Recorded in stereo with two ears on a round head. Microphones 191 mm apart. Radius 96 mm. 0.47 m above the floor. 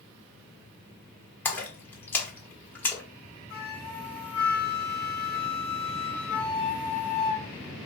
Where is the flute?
10° left (ahead or behind), 2.0 m.